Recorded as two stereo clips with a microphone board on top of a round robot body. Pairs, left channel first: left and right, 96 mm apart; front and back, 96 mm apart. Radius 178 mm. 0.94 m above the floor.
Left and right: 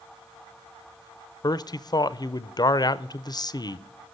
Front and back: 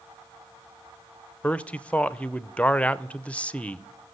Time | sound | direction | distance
1.4 | a man speaking | 70° left | 0.7 m